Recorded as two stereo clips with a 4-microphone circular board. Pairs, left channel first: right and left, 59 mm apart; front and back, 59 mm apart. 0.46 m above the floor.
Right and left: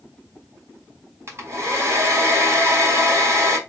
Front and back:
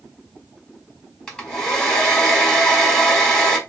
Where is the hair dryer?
75° left, 1.8 m.